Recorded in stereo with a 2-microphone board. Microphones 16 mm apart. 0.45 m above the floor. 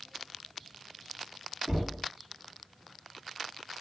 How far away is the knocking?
About 2.5 m.